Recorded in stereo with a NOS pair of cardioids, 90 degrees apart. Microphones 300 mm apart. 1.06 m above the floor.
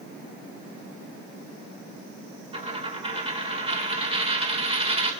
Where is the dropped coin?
20° right, 1.9 m.